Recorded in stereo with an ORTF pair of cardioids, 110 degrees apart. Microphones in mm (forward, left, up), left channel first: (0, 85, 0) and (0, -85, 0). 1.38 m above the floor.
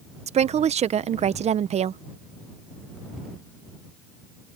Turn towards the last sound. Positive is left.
turn(degrees=-40)